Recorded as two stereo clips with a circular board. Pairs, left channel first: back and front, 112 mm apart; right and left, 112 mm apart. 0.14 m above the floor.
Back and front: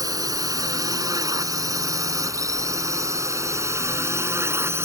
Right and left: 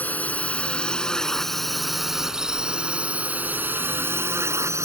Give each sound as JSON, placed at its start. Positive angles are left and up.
{"t": 0.0, "sound": "a drone", "azimuth_deg": -25}